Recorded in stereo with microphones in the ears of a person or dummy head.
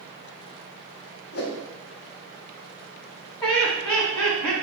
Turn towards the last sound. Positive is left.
turn(degrees=30)  # may be behind; listen again after turning